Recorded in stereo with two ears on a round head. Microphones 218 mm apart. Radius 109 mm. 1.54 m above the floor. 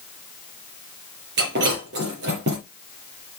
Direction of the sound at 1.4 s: 50° right (ahead or behind).